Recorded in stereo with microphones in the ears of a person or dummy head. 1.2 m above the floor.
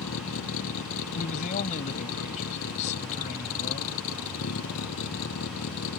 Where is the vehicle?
80° left.